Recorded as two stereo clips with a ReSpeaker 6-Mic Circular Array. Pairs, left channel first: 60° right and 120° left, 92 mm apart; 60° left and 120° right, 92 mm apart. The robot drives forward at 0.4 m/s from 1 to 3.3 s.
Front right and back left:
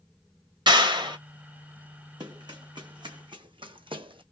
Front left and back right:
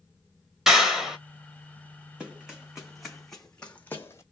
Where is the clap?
155° left, 2 m.